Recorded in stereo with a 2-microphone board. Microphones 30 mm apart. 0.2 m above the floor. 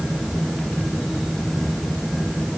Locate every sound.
Only background noise.